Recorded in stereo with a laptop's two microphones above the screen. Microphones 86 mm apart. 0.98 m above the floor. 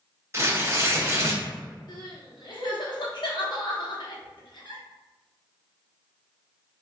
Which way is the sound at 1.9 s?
60° left (ahead or behind).